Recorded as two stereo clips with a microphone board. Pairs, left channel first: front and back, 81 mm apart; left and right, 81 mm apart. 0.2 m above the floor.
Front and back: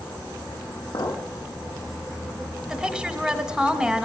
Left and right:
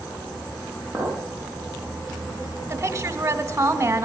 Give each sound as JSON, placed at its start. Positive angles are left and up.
{"t": 0.9, "sound": "a clink", "azimuth_deg": 10, "distance_m": 5.5}
{"t": 2.7, "sound": "a woman speaking", "azimuth_deg": -100, "distance_m": 1.2}